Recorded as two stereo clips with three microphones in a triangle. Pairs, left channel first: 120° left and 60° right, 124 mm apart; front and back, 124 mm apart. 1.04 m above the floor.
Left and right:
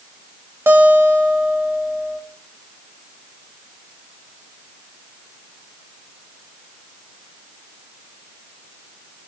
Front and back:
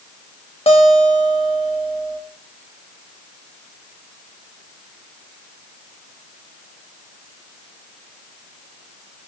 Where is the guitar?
5° left, 1.2 m.